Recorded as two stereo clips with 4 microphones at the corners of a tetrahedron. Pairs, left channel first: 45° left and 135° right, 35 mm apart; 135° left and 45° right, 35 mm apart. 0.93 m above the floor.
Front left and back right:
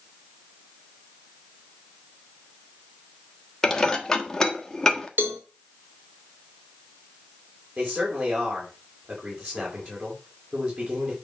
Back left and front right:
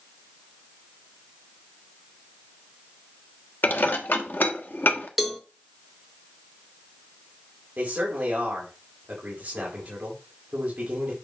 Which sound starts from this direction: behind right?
A cowbell, at 5.2 s.